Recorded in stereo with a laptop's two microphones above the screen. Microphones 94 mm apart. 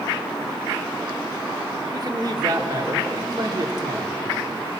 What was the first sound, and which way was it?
A man speaking, 45° right (ahead or behind).